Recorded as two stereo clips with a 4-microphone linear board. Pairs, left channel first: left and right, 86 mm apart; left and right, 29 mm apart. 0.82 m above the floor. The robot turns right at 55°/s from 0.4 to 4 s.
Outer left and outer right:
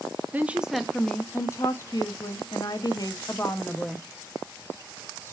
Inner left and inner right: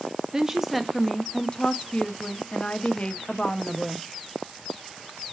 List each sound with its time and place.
0.3 s a woman speaking: 20° right, 0.5 m; by 4.1 s 175° left, 0.5 m